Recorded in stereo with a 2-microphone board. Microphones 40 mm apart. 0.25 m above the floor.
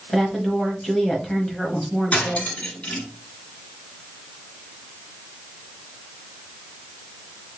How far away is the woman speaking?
About 1.1 m.